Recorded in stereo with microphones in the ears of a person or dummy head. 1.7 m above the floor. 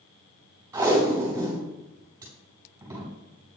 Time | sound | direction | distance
0.7 | tape being pulled | 15° right (ahead or behind) | 3.5 m